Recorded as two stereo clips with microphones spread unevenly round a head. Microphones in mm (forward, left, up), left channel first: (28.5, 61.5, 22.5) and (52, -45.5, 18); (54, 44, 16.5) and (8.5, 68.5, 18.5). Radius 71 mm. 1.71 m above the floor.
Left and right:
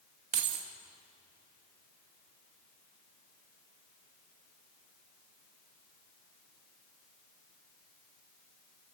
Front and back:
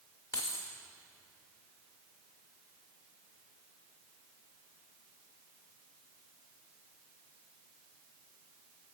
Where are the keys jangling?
90° right, 1.9 m.